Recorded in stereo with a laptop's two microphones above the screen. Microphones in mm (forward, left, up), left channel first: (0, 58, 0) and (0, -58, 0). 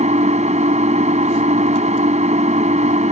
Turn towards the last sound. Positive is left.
turn(degrees=-75)  # may be behind; listen again after turning